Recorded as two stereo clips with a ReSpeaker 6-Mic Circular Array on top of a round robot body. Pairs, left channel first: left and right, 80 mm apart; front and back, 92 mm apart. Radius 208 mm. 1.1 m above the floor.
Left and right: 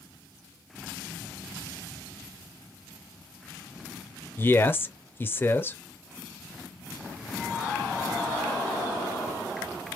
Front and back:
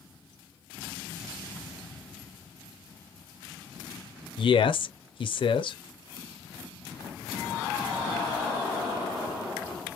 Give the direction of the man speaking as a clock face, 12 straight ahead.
11 o'clock.